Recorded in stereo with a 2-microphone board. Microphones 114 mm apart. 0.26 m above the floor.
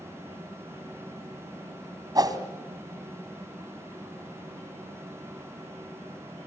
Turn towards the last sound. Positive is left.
turn(degrees=-35)  # may be behind; listen again after turning